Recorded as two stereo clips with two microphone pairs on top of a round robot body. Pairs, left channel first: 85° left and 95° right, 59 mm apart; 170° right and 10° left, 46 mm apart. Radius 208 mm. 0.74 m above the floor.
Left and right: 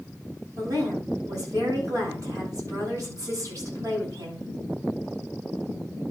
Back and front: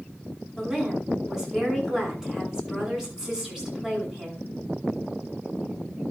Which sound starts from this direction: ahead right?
A woman speaking, at 0.6 s.